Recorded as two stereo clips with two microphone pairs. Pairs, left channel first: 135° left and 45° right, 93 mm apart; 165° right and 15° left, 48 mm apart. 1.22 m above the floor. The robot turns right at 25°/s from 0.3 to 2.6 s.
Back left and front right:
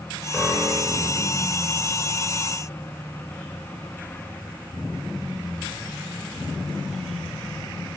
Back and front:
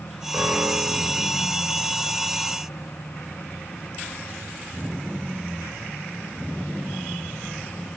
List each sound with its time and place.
0.3 s a piano: 35° left, 5.5 m; by 1.3 s 55° left, 5.5 m